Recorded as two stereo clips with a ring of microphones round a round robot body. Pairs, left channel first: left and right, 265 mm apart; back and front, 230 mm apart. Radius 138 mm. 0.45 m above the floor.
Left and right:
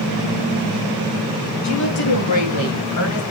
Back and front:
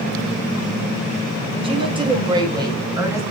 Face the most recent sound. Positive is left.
turn(degrees=75)